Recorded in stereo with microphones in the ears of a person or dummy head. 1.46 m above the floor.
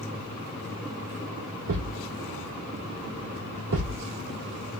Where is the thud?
55° right (ahead or behind), 1.9 m.